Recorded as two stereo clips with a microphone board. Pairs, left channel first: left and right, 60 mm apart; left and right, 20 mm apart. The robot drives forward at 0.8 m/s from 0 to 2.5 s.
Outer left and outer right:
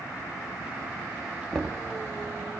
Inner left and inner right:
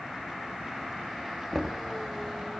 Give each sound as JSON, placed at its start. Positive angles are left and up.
{"t": 1.5, "sound": "knocking", "side_deg": 5, "distance_m": 1.6}